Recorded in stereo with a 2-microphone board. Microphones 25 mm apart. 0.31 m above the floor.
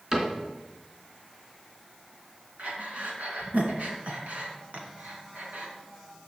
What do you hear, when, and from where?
0.1 s a cupboard door: 25° right (ahead or behind), 3 m
2.6 s breathing: 70° right (ahead or behind), 2 m